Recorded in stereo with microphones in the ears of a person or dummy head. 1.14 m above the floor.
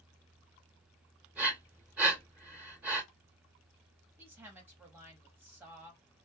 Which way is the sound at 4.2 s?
10° right (ahead or behind).